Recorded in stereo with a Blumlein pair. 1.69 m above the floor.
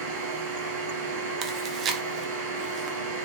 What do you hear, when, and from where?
0.0 s a machine running: 45° right, 0.9 m
1.4 s chewing: 25° right, 0.6 m